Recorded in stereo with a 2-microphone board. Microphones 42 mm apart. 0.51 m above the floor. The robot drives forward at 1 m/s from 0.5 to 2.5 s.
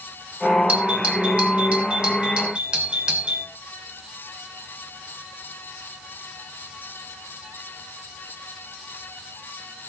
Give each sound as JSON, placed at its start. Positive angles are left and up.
{"t": 0.7, "sound": "a doorbell", "side_deg": -35, "distance_m": 2.0}